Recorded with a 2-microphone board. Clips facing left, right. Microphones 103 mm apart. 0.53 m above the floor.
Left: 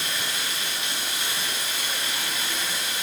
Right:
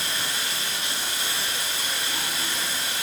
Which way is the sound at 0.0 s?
30° right (ahead or behind).